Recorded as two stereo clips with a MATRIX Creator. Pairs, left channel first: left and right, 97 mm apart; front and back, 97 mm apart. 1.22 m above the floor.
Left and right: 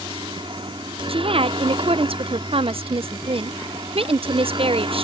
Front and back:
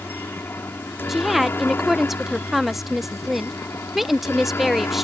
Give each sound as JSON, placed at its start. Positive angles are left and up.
{"t": 0.0, "sound": "a helicopter", "azimuth_deg": -70}
{"t": 1.1, "sound": "a woman speaking", "azimuth_deg": -95}